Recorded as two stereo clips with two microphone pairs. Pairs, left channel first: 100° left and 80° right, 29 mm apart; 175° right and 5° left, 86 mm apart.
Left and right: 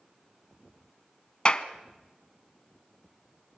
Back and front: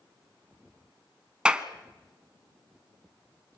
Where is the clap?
80° left, 1.0 m.